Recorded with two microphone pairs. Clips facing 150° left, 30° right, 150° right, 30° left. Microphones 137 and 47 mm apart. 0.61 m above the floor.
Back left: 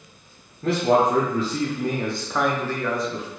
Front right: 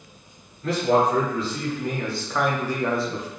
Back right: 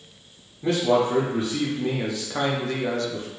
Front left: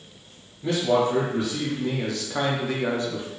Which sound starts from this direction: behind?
A man speaking, at 0.6 s.